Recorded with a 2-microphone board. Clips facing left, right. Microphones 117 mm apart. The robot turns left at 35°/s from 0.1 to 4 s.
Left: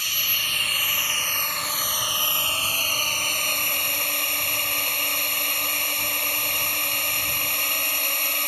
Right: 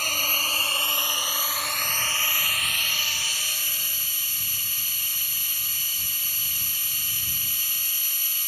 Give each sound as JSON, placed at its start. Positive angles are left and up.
{"t": 0.0, "sound": "a drone", "azimuth_deg": -125}